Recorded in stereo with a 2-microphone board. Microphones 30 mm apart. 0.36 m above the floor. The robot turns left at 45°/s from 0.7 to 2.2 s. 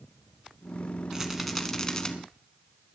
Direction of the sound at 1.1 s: 165° right.